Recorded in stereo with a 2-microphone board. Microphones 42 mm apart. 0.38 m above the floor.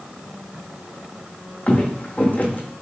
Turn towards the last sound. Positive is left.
turn(degrees=40)  # may be behind; listen again after turning